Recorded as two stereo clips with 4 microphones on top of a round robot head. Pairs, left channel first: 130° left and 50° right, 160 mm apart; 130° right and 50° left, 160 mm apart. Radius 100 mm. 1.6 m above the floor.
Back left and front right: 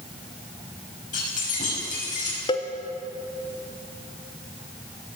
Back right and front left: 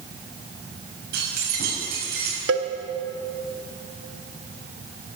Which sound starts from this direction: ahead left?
A cowbell, at 2.5 s.